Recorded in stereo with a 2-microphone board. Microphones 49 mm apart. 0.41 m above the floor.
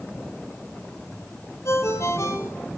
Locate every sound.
1.6 s a ringtone: 70° left (ahead or behind), 4 m